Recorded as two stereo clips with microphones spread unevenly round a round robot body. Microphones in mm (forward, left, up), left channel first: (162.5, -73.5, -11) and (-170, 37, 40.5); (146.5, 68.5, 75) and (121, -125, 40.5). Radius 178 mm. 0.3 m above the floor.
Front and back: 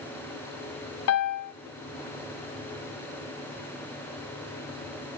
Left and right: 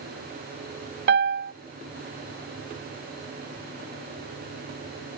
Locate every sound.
1.1 s a piano: 65° right, 0.6 m